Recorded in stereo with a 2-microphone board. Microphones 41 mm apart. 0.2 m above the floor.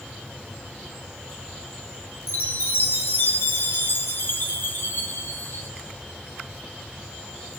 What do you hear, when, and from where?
0.0 s an insect: 15° left (ahead or behind), 8.5 m
2.3 s a chime: 65° left (ahead or behind), 4 m